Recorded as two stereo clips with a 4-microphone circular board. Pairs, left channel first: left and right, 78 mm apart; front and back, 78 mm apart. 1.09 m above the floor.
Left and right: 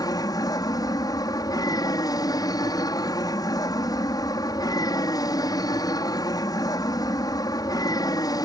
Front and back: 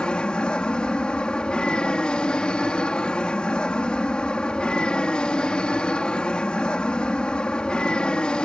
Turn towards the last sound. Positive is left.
turn(degrees=75)